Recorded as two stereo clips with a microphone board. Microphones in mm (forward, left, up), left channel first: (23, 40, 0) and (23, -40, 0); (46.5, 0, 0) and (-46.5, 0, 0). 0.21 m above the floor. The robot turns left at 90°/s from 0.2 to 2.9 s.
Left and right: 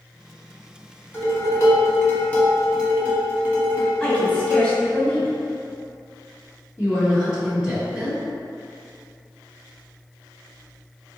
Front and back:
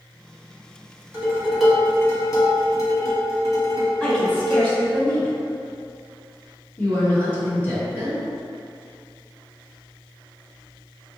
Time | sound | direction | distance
1.1 | dishes clattering | 135° left | 1.2 m
4.0 | a woman speaking | 45° left | 1.0 m
6.8 | a woman speaking | 30° right | 1.5 m